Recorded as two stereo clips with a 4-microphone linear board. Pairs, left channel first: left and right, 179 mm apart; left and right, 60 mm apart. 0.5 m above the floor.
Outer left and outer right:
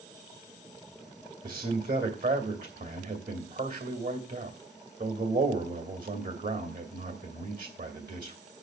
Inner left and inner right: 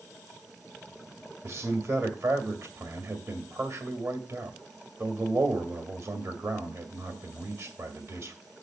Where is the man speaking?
55° right (ahead or behind), 2 m.